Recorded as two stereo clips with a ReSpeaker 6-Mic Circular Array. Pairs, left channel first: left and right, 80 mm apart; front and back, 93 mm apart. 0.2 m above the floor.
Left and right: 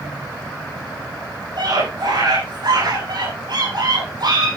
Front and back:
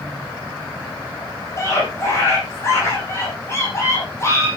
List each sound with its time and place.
1.6 s a scream: 60° right, 8.5 m